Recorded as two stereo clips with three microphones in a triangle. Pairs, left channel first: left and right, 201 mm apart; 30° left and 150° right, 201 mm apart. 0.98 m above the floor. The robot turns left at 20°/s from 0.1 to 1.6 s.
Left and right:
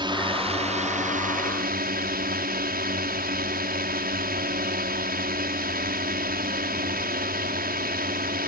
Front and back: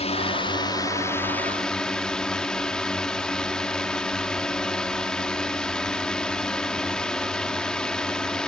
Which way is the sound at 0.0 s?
25° right.